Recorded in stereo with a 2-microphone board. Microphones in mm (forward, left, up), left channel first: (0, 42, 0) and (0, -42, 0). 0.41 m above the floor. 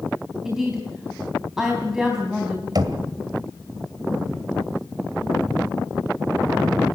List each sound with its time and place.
0.5 s a woman speaking: 5° right (ahead or behind), 3.5 m
2.8 s knocking: 50° right (ahead or behind), 2 m